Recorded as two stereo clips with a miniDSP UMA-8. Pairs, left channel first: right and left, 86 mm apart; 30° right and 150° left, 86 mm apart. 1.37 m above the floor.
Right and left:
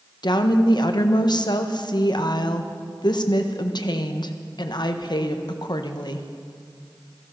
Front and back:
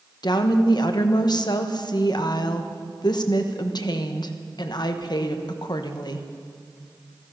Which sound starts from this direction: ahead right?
A woman speaking, at 0.2 s.